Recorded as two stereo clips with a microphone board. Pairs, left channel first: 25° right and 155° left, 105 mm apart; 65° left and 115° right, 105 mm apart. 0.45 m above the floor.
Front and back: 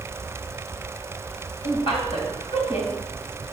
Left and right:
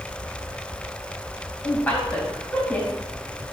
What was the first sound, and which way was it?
A woman speaking, 5° right.